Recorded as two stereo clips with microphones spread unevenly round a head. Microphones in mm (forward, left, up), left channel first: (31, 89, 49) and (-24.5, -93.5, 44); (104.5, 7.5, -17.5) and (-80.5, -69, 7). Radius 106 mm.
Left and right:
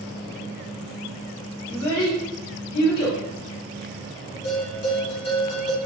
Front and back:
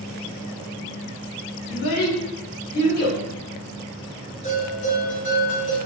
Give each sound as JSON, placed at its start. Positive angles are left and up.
{"t": 1.7, "sound": "a child speaking", "azimuth_deg": 75, "distance_m": 1.3}
{"t": 4.4, "sound": "a bell", "azimuth_deg": 30, "distance_m": 1.7}